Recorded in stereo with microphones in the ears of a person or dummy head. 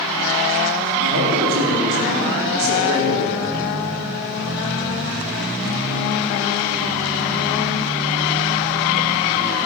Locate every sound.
1.0 s a man speaking: 80° right, 3 m; by 3.3 s 90° right, 4 m